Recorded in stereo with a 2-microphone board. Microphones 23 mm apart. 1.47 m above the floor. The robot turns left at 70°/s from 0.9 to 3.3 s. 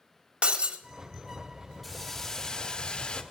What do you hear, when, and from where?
0.4 s breaking glass: 50° right (ahead or behind), 1.1 m
1.8 s a hiss: 170° left, 1.1 m; by 3.2 s 75° left, 1.1 m